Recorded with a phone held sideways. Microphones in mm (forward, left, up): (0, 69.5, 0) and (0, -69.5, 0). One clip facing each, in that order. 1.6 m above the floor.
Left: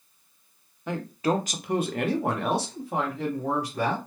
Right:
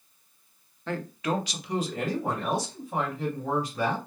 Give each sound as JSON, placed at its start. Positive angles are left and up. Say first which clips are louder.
{"t": 0.9, "sound": "a man speaking", "louder": "left 3 dB", "side_deg": 15, "distance_m": 0.5}